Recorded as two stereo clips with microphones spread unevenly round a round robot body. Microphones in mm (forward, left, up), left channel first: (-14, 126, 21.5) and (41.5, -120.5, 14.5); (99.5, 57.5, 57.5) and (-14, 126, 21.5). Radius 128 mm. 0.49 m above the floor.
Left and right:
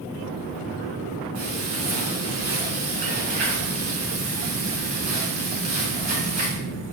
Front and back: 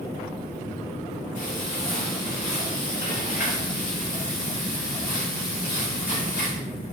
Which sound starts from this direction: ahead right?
Frying, at 1.4 s.